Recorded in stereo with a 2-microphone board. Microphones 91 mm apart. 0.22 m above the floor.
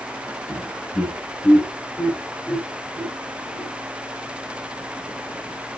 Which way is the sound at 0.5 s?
25° right (ahead or behind).